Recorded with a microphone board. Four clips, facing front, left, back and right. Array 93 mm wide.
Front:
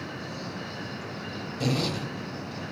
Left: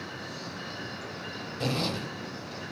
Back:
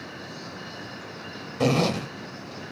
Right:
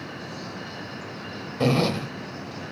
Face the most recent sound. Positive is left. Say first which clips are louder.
# right 9 dB, back 6 dB
turn(degrees=-140)